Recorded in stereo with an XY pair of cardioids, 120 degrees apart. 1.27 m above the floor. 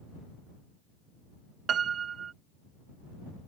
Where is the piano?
45° right.